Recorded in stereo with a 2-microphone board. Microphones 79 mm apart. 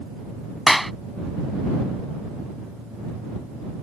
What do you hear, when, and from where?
0.7 s a clap: centre (ahead or behind)